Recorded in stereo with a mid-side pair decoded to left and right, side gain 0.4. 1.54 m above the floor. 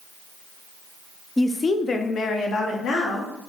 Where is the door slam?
No door slam in this recording.